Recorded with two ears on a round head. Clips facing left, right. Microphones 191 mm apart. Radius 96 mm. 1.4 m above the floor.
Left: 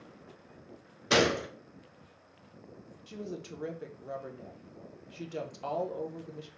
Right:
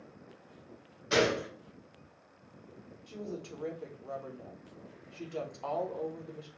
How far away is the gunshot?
About 0.7 m.